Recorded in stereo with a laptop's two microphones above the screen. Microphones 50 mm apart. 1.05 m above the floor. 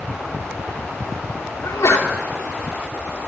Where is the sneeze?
80° left, 2.5 m.